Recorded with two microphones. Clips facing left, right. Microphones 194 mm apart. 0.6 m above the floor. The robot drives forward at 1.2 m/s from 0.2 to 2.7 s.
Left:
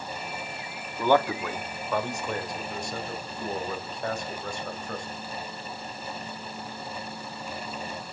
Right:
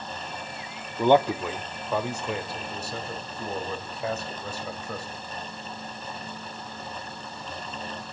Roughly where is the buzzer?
I don't hear a buzzer.